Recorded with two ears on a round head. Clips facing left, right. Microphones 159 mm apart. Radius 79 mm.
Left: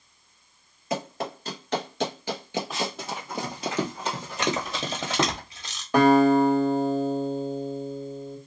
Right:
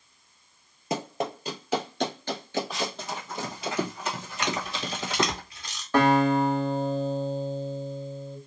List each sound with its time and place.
0.9 s running footsteps: 25° right (ahead or behind), 1.3 m; by 3.7 s 35° left (ahead or behind), 1.5 m
2.7 s running footsteps: centre (ahead or behind), 1.8 m; by 5.4 s 50° left (ahead or behind), 1.8 m
4.4 s a camera shutter: 20° left (ahead or behind), 1.1 m
5.9 s a guitar: 15° left (ahead or behind), 1.6 m